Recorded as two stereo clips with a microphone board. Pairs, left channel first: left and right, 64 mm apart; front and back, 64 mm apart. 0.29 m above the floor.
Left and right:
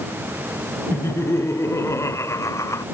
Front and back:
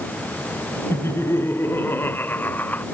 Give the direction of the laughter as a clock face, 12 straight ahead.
11 o'clock.